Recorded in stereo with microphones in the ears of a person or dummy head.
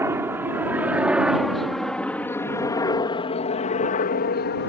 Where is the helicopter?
20° right (ahead or behind); by 4.7 s 55° left (ahead or behind).